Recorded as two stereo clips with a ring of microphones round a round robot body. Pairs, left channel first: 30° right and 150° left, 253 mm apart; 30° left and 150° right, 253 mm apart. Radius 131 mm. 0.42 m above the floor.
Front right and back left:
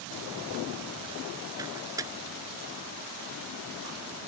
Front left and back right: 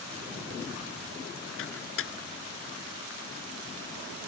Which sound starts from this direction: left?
A microwave, at 1.6 s.